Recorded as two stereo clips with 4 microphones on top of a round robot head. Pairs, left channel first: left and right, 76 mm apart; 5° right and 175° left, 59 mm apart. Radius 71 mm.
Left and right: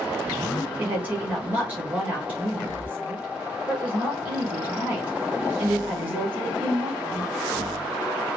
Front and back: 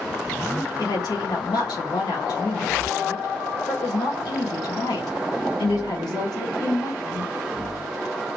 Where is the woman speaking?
15° right, 2.5 m.